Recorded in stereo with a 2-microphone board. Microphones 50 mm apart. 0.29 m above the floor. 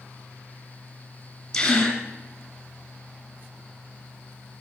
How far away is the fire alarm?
I don't hear a fire alarm.